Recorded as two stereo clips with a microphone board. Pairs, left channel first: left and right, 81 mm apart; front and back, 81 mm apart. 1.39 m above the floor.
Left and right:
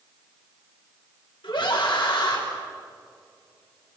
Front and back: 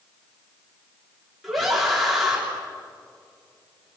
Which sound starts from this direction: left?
A scream, at 1.4 s.